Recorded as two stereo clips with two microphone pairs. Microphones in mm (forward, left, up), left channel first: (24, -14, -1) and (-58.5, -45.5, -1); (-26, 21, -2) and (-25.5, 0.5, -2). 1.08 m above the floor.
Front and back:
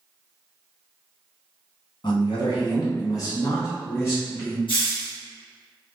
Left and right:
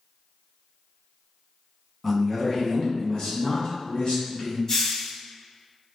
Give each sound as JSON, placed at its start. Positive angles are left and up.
{"t": 2.0, "sound": "a man speaking", "azimuth_deg": 10, "distance_m": 0.9}
{"t": 4.7, "sound": "a hiss", "azimuth_deg": 40, "distance_m": 1.3}